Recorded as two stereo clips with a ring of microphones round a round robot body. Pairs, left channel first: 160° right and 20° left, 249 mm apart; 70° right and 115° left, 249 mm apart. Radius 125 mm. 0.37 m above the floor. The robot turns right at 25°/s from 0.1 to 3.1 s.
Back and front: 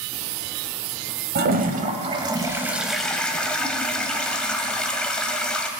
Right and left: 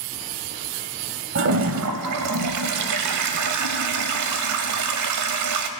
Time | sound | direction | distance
1.4 | a toilet flushing | 75° left | 0.9 m